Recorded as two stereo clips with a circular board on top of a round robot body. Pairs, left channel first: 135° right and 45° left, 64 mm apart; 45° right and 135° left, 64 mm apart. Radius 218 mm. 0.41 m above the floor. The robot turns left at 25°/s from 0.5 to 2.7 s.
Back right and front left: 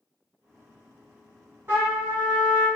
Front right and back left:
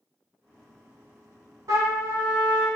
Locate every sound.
1.7 s a trumpet: 100° left, 0.8 m; by 2.7 s 80° left, 0.8 m